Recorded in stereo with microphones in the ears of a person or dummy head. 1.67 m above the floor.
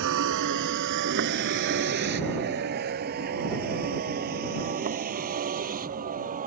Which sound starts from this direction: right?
A vehicle, at 0.0 s.